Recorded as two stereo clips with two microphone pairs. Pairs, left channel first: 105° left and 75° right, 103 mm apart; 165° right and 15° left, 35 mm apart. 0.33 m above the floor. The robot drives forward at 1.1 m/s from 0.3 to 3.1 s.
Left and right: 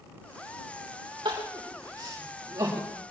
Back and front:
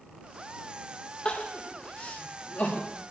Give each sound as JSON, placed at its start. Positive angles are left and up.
{"t": 1.2, "sound": "crying", "azimuth_deg": -120, "distance_m": 6.0}